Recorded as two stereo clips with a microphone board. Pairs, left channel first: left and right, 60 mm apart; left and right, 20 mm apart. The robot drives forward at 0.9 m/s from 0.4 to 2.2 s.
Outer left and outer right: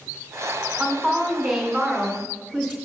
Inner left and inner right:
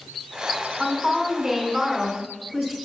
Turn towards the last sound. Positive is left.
turn(degrees=0)  # may be behind; listen again after turning